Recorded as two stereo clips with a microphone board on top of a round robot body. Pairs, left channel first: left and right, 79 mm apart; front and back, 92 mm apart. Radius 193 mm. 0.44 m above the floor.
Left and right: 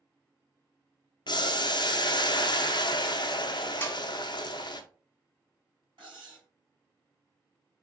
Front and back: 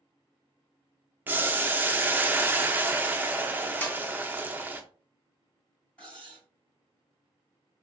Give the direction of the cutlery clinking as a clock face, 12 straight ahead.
3 o'clock.